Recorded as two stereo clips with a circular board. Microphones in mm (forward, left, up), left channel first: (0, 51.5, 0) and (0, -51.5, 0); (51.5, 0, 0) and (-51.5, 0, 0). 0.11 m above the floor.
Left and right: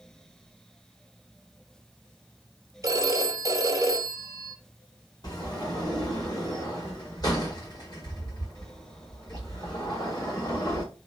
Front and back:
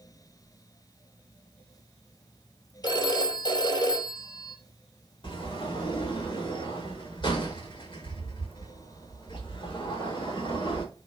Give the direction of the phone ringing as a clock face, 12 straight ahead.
1 o'clock.